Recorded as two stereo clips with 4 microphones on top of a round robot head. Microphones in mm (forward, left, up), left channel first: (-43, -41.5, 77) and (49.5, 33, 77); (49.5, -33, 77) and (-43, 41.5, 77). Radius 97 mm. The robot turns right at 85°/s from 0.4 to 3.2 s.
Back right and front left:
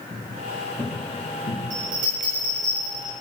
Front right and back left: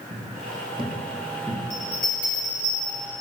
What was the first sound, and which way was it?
Footsteps, 105° left.